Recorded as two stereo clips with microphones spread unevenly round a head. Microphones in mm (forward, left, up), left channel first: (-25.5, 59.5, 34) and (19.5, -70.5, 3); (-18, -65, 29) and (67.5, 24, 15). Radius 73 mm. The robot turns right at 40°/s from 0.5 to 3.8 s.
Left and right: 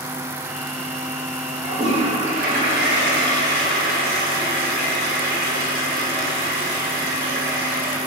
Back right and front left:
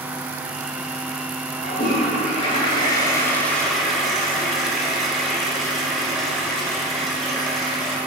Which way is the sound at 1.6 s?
135° right.